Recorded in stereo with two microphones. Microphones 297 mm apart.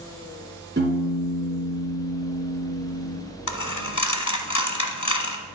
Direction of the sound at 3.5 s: 65° left (ahead or behind).